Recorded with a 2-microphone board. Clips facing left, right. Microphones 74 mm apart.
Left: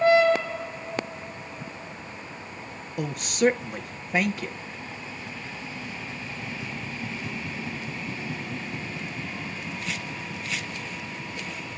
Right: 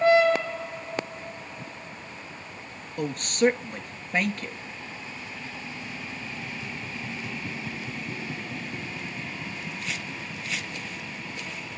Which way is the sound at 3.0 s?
5° left (ahead or behind).